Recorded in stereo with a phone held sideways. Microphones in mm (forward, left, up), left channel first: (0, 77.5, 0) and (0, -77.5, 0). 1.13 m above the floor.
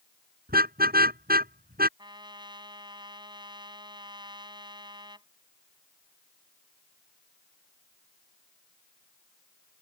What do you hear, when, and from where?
0.5 s a car horn: 80° right
2.0 s a trumpet: 30° right (ahead or behind)